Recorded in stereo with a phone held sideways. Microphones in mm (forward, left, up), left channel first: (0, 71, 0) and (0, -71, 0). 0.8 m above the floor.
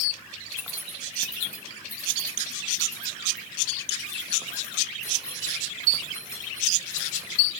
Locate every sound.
0.5 s keys jangling: 20° left (ahead or behind), 3 m